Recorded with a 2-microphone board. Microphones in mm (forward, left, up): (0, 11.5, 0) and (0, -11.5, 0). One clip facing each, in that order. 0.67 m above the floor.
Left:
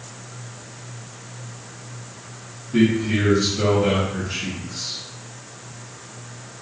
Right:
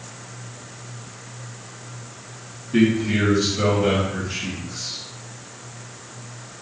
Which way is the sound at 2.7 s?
35° right (ahead or behind).